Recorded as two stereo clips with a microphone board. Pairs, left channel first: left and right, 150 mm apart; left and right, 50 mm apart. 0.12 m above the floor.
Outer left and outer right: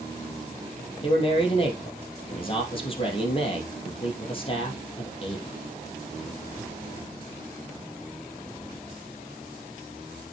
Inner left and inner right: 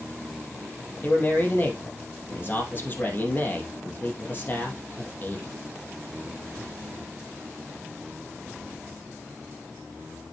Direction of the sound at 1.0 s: 35° left (ahead or behind).